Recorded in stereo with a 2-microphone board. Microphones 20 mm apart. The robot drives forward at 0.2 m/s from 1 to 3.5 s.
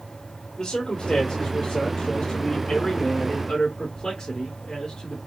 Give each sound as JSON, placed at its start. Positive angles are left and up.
{"t": 0.6, "sound": "a man speaking", "side_deg": 50, "distance_m": 1.4}